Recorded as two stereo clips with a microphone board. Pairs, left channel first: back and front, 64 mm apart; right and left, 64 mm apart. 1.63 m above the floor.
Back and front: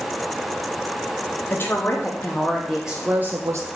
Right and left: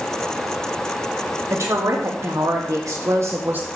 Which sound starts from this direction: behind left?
A woman speaking, at 1.5 s.